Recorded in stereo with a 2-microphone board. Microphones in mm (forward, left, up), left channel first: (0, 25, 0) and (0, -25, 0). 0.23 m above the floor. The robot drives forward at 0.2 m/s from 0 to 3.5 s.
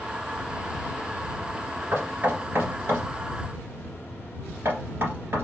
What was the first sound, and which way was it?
Knocking, 50° right (ahead or behind).